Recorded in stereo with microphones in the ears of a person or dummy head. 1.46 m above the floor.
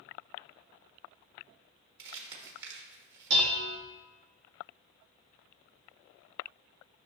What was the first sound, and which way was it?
Crumpling, 60° right (ahead or behind).